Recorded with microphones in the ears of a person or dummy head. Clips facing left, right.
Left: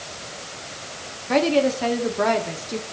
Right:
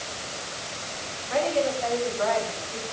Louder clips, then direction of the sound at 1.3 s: Left 6 dB; 75° left (ahead or behind).